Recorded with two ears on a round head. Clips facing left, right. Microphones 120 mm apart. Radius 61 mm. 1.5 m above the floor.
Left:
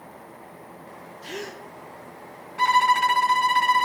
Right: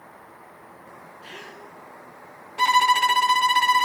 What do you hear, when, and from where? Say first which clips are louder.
1.2 s a gasp: left 9 dB; 50° left (ahead or behind), 0.9 m
2.6 s a violin: even; 30° right (ahead or behind), 0.7 m